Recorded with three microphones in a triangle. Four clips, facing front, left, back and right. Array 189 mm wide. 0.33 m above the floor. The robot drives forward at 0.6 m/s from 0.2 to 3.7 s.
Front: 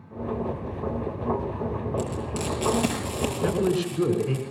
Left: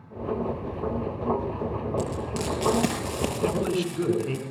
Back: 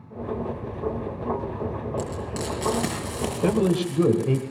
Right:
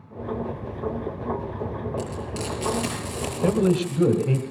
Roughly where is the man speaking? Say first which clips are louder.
Right 6 dB, back 3 dB; behind right.